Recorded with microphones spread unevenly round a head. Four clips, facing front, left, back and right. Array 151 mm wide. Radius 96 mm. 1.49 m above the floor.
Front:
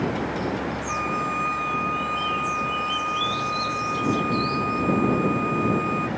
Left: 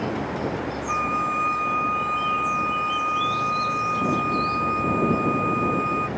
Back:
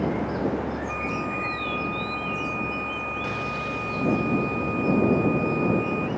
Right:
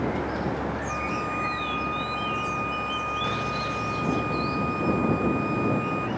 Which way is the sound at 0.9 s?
115° left.